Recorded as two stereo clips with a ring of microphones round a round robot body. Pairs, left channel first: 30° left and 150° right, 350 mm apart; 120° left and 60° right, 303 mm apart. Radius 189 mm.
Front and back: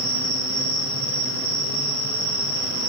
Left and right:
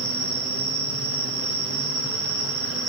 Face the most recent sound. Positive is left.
turn(degrees=-120)